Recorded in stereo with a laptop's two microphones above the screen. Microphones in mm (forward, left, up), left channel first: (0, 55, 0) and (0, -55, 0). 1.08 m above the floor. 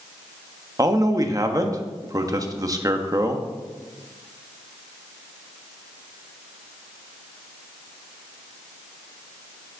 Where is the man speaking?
30° right (ahead or behind), 1.2 m.